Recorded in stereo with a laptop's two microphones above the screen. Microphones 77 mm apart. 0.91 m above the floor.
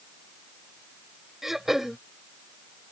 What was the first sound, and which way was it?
Throat clearing, 5° right (ahead or behind).